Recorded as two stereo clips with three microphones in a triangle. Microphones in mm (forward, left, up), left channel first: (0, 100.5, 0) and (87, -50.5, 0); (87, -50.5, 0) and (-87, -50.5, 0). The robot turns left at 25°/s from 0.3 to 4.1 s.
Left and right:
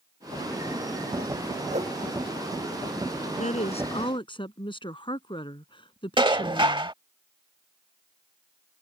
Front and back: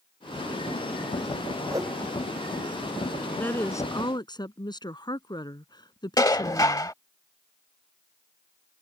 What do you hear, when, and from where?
1.7 s a whoosh: 110° right; by 1.9 s 115° right
3.4 s a woman speaking: 80° left; by 6.9 s 60° left
6.2 s dishes clattering: 45° right